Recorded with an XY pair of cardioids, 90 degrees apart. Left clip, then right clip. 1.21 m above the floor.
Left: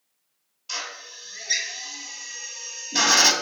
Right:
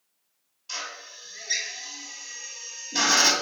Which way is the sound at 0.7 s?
30° left.